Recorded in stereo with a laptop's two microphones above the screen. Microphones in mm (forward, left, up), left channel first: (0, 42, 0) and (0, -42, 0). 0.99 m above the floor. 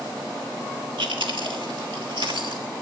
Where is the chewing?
85° right, 1.4 m.